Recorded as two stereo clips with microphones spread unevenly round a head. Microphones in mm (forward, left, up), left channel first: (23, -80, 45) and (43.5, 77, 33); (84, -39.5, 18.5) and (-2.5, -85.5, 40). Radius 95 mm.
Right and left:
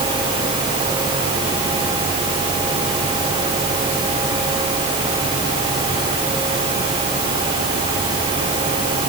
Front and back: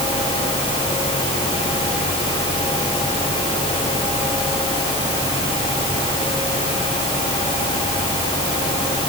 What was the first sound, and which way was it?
Only background noise.